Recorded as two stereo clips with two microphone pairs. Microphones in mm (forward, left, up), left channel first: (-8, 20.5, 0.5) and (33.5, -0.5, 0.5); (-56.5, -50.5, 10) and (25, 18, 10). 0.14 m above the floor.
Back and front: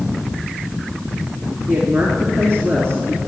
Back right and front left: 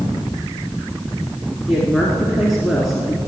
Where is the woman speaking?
50° right, 2 m.